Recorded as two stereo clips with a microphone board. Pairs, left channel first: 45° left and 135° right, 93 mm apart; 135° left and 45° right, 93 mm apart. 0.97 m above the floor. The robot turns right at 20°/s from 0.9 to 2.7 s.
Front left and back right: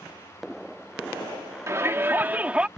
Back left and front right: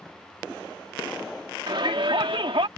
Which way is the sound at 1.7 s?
75° right.